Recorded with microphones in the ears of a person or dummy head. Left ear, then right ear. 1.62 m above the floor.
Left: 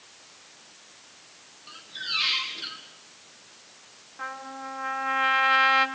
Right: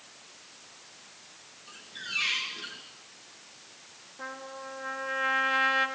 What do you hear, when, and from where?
1.7 s a squeak: 40° left (ahead or behind), 2 m
4.2 s a trumpet: 60° left (ahead or behind), 2.5 m